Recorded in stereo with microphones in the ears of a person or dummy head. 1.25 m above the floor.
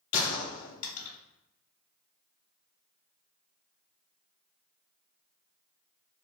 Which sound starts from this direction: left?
A gunshot, at 0.1 s.